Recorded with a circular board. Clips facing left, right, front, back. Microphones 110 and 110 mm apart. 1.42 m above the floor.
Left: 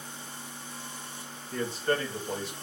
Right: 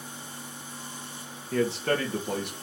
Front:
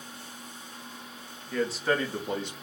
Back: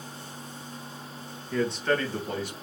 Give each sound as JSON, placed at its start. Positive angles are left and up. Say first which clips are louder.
{"t": 1.5, "sound": "a man speaking", "louder": "right 3 dB, back 1 dB", "azimuth_deg": -95, "distance_m": 1.3}